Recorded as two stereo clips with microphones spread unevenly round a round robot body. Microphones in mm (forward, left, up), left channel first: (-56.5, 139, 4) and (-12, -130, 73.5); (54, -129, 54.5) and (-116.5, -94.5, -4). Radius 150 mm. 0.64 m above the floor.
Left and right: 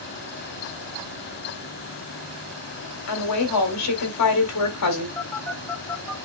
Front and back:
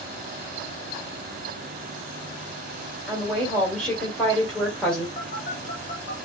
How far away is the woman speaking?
About 2.5 m.